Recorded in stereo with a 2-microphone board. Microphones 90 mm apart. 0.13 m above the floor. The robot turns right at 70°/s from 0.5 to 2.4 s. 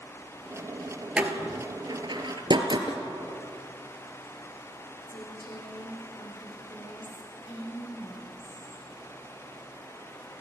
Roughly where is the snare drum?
Left.